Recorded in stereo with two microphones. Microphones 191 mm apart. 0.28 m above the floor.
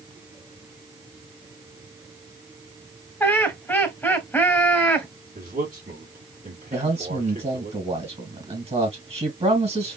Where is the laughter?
10° left (ahead or behind), 1.2 m.